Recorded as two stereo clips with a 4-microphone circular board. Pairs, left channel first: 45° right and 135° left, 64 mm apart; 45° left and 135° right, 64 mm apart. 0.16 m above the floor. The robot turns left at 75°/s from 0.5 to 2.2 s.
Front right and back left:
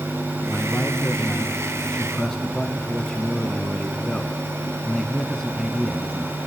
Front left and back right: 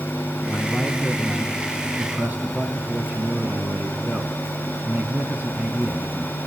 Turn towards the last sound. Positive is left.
turn(degrees=-120)